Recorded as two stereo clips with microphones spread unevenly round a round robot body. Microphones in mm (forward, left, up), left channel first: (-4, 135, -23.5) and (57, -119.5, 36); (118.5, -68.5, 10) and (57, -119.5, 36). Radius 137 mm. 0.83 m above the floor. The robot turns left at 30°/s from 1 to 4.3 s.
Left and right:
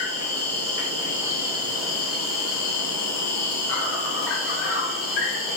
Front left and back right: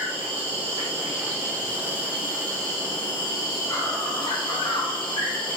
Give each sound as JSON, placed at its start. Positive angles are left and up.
{"t": 0.0, "sound": "an insect", "azimuth_deg": 165, "distance_m": 0.8}